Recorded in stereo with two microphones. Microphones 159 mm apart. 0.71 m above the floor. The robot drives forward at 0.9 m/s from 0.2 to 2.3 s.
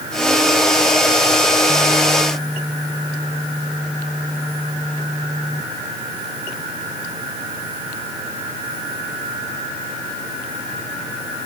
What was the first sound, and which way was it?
Only background noise.